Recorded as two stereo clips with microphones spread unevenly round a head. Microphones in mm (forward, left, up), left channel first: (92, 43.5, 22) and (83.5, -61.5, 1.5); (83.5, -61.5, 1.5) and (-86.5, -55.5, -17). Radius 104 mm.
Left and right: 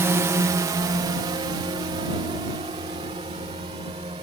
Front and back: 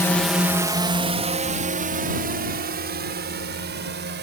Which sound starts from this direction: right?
A drone, at 0.0 s.